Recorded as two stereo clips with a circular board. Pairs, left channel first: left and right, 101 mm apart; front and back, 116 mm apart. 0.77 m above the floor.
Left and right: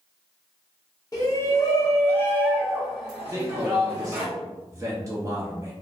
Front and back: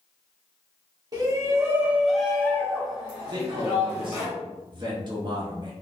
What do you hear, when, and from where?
1.1 s a shout: 130° left, 1.0 m; by 4.3 s 25° right, 1.3 m
3.3 s a man speaking: 140° right, 0.7 m